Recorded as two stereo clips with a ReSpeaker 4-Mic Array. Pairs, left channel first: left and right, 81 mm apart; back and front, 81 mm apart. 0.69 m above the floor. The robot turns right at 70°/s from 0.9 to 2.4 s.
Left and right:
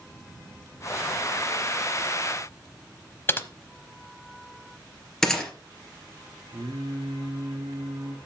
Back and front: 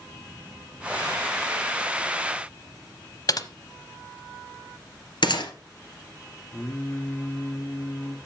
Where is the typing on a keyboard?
150° left, 0.9 m.